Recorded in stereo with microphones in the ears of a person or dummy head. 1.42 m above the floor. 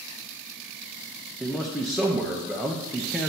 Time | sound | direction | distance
1.4 | a man speaking | centre (ahead or behind) | 0.5 m